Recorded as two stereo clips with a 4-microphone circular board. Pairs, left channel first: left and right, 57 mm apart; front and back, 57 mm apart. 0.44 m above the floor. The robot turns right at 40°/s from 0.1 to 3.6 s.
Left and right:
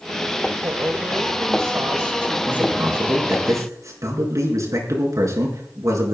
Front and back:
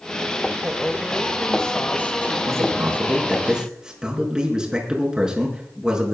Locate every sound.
0.6 s a woman speaking: 115° right, 1.7 m; by 2.4 s 45° right, 1.7 m
2.5 s a man speaking: 150° right, 6 m; by 6.2 s 105° right, 6 m